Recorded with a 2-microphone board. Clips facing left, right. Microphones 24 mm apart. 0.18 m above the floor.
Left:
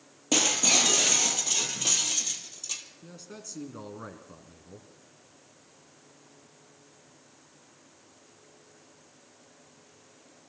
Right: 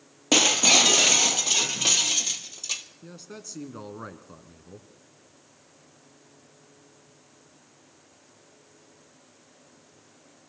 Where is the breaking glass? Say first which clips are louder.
Right 5 dB; 30° right (ahead or behind), 1.3 m.